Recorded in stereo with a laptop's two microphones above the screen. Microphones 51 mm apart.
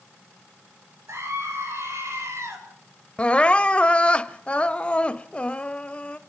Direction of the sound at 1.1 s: 70° right (ahead or behind).